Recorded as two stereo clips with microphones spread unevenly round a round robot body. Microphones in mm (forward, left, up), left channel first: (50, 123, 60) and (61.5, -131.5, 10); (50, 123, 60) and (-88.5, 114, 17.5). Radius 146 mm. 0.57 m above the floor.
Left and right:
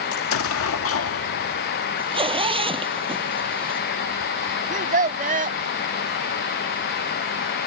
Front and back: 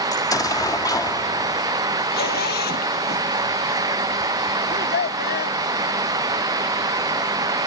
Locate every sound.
0.1 s an explosion: 80° left
2.0 s a zipper: 15° right
4.7 s a child speaking: 30° right